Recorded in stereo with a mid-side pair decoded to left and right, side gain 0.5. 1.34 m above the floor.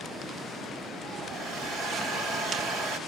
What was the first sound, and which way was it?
A hair dryer, 65° right.